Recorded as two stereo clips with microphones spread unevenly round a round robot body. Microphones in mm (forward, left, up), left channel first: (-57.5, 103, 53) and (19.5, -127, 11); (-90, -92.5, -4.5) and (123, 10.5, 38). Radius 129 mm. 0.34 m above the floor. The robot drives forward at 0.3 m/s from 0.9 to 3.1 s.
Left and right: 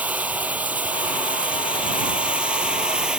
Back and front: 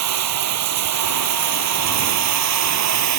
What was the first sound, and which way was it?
Running water, 15° left.